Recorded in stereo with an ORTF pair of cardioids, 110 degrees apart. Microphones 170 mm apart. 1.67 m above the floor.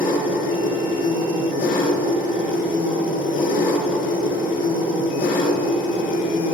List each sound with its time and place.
0.0 s an engine running: 65° left, 2 m